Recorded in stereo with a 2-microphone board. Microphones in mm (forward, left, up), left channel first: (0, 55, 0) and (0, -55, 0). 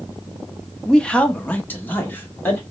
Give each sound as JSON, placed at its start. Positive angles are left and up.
{"t": 0.8, "sound": "a man speaking", "side_deg": 5, "distance_m": 0.6}